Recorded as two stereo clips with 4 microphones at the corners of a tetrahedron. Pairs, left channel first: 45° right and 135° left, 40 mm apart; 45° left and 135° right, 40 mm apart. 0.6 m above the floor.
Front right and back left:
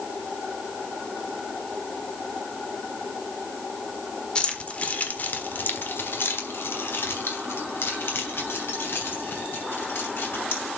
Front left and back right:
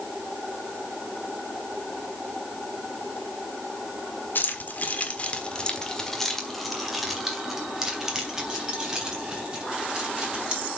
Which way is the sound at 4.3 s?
20° left.